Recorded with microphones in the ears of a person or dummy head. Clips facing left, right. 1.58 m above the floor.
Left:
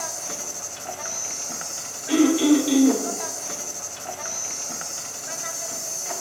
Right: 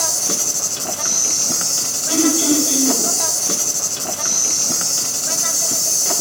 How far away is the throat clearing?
About 7 m.